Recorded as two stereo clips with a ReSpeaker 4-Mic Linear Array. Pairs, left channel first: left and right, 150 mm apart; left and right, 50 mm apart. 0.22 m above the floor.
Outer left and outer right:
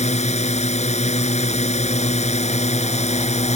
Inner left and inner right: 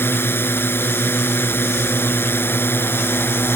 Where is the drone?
45° left (ahead or behind).